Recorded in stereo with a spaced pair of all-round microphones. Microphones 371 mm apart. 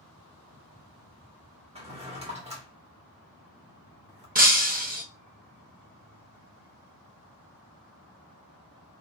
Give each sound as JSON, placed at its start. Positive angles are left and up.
{"t": 1.8, "sound": "a drawer", "side_deg": -15, "distance_m": 0.9}
{"t": 4.3, "sound": "breaking glass", "side_deg": -25, "distance_m": 0.6}